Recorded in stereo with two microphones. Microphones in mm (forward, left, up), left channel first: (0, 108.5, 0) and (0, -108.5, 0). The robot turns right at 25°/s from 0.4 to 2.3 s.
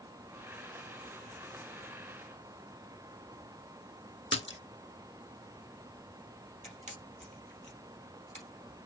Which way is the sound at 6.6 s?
30° right (ahead or behind).